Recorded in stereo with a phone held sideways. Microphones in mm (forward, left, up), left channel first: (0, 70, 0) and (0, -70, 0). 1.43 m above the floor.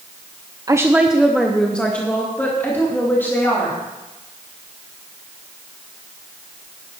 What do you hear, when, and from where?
0.7 s a woman speaking: 25° right (ahead or behind), 0.5 m; by 3.8 s 15° left (ahead or behind), 3 m